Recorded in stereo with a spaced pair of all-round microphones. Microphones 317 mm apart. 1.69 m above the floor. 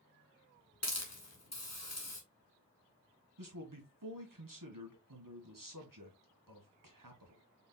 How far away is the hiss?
About 1.3 m.